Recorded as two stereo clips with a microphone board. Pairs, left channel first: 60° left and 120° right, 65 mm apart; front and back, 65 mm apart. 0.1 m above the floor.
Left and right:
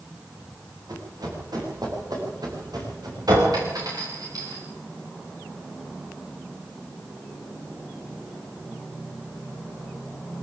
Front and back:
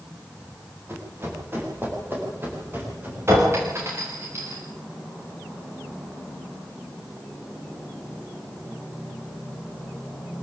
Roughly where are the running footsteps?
Behind right.